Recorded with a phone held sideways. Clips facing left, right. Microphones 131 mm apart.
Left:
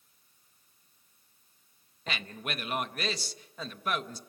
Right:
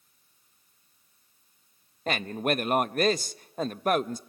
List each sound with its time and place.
2.1 s a man speaking: 50° right (ahead or behind), 0.6 m